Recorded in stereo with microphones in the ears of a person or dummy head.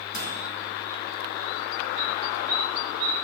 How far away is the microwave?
About 5 m.